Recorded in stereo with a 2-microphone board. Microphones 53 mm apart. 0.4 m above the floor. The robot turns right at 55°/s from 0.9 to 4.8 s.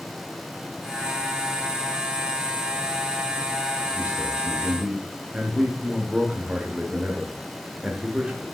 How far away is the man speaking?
About 0.8 m.